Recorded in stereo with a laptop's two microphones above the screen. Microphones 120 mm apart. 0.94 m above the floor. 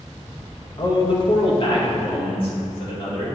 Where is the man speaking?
40° left (ahead or behind), 0.9 m.